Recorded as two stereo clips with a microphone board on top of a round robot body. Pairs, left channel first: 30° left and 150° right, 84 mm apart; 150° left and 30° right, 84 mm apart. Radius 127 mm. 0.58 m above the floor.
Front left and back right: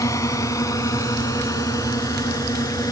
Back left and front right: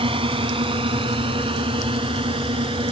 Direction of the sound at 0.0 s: 25° right.